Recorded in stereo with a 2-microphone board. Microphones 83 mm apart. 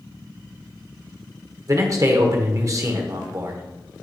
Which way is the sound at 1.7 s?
40° right (ahead or behind).